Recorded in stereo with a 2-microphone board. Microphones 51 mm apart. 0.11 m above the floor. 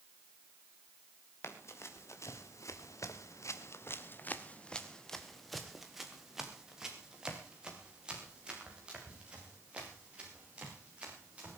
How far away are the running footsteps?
About 3.5 m.